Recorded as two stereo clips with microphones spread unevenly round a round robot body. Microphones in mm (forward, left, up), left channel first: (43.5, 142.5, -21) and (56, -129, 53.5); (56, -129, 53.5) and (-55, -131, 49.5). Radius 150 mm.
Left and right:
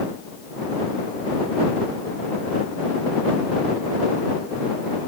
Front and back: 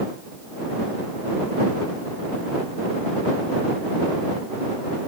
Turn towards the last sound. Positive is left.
No sound to turn to.